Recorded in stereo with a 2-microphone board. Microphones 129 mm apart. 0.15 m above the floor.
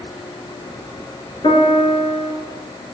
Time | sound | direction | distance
1.4 | a piano | 45° left (ahead or behind) | 2.5 m